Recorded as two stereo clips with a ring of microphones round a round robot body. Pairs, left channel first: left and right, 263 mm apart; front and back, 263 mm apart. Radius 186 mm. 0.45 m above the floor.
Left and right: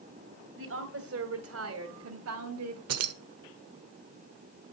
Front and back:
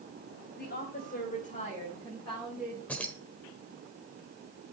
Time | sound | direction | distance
0.6 | a woman speaking | 55° right | 2.5 m
2.9 | keys jangling | 85° right | 1.1 m